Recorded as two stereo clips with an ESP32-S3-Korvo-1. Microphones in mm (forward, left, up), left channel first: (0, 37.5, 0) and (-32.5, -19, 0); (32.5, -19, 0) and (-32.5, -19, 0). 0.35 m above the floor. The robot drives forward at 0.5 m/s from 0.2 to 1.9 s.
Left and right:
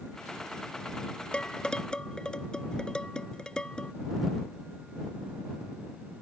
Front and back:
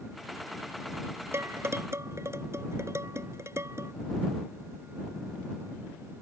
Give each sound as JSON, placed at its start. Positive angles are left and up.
{"t": 1.3, "sound": "dishes clattering", "azimuth_deg": 135}